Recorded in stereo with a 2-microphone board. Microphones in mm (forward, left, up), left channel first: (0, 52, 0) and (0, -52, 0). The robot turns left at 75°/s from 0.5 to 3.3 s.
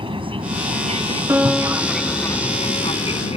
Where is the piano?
160° right; by 2.9 s 80° left.